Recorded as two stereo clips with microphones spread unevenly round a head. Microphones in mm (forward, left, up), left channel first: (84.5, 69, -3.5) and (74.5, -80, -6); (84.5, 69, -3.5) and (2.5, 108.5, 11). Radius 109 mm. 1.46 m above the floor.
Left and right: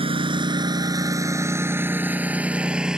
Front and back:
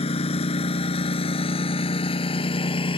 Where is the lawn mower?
45° right; by 3.0 s 10° right.